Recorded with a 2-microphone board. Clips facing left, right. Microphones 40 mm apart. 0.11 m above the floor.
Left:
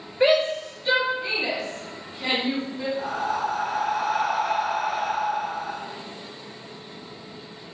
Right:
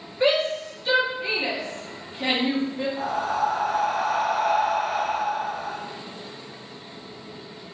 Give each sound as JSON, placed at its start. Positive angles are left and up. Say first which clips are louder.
{"t": 0.2, "sound": "a shout", "louder": "left 2 dB", "side_deg": 30, "distance_m": 1.7}
{"t": 3.0, "sound": "breathing", "louder": "right 2 dB", "side_deg": -60, "distance_m": 1.7}